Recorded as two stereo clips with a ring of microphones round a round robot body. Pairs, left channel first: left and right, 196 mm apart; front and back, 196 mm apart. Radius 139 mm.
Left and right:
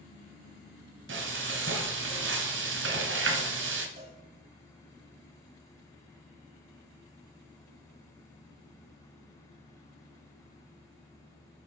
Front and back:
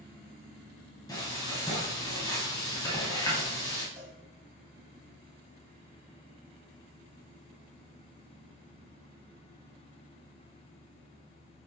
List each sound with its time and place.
1.1 s frying: 80° right, 1.4 m
4.0 s a cowbell: 115° right, 1.4 m